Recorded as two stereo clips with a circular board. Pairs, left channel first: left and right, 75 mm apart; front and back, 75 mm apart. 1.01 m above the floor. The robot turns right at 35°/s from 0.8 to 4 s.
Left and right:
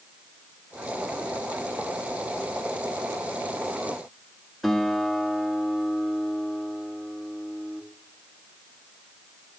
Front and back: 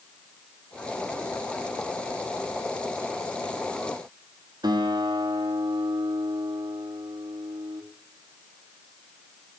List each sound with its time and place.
4.6 s a guitar: straight behind, 2.5 m